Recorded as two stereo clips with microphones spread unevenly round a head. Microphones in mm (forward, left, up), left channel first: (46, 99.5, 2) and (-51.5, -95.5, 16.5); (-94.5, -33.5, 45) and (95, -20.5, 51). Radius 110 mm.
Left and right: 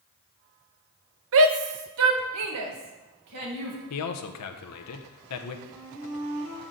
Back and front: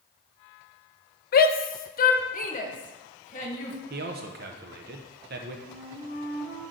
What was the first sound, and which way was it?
A shout, 140° right.